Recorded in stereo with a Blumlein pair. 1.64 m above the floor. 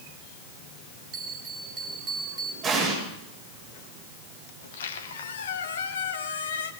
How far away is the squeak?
About 1.6 m.